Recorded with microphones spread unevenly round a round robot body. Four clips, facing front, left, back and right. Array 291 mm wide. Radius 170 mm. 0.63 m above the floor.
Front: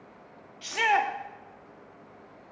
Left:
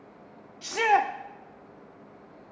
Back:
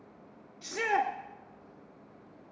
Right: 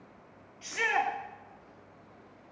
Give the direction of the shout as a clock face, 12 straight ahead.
8 o'clock.